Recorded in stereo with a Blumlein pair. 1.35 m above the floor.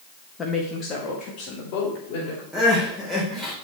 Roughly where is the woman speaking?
Ahead.